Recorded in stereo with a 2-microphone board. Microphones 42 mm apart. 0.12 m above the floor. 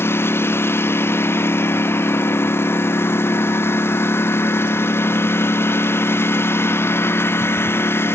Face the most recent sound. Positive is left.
turn(degrees=70)  # may be behind; listen again after turning